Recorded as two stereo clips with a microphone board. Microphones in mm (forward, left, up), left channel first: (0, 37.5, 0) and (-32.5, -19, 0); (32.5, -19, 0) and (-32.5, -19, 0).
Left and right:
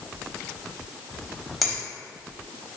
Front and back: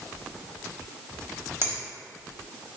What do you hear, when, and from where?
1.6 s a finger snap: 150° left, 1.0 m